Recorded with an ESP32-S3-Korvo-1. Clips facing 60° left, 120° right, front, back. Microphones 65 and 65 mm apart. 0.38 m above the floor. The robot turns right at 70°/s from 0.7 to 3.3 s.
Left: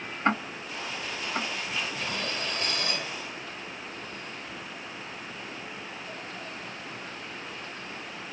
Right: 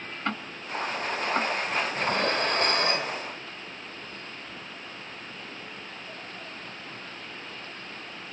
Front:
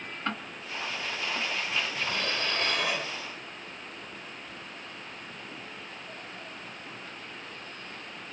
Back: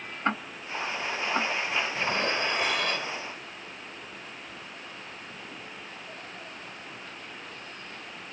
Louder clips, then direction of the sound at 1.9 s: Right 7 dB, back 4 dB; 150° right.